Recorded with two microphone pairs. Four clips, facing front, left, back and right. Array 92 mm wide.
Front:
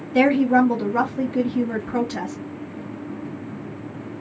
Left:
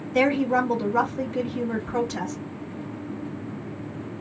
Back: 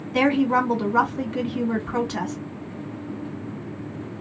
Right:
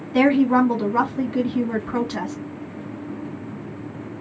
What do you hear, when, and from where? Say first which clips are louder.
0.1 s a woman speaking: right 5 dB, front 3 dB; 135° right, 2 m